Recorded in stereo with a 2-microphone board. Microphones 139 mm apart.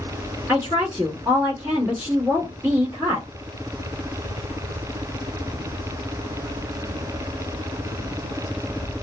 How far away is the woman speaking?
About 1.4 m.